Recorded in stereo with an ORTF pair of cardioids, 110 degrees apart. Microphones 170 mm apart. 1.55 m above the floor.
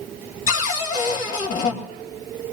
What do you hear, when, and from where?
0.5 s a cupboard door: 50° left, 2.5 m